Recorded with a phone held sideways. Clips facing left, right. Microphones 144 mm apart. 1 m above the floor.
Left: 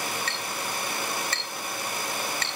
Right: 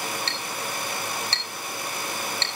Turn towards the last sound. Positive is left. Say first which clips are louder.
# even
turn(degrees=-25)  # may be behind; listen again after turning